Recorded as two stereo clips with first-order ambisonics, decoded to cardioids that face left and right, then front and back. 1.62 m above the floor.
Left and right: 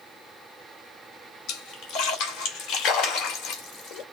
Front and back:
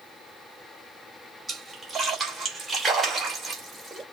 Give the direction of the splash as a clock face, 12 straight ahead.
9 o'clock.